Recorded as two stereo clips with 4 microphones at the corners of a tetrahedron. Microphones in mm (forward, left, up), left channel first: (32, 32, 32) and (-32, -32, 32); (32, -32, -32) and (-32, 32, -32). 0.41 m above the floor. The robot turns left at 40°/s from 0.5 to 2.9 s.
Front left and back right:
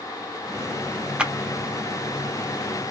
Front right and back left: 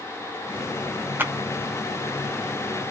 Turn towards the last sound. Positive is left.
turn(degrees=90)